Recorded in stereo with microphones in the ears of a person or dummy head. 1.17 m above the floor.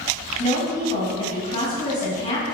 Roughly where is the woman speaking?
Left.